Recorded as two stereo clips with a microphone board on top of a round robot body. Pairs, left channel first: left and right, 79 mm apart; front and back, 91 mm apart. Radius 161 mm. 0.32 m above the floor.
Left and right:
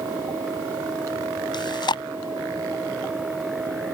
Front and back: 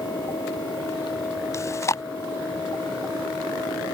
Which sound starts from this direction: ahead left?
Chewing, at 1.5 s.